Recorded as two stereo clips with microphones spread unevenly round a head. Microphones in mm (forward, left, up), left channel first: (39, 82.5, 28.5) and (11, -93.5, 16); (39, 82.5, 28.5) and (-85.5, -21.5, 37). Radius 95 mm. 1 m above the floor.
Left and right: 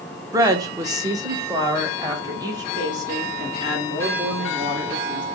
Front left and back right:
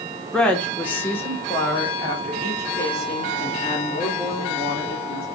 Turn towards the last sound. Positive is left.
turn(degrees=-30)